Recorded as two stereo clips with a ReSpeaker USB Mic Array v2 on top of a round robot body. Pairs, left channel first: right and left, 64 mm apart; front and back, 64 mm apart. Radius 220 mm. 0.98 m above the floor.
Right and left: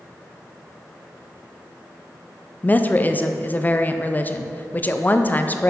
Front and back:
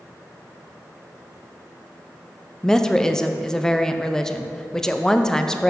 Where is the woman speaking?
70° right, 0.8 m.